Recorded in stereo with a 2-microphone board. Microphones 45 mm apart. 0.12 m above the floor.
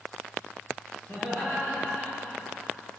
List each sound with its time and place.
1.1 s laughter: 45° left (ahead or behind), 1.9 m; by 2.6 s 35° left (ahead or behind), 2.5 m